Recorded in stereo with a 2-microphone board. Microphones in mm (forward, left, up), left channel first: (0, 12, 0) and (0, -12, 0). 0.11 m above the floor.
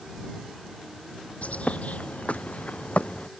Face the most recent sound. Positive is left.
turn(degrees=85)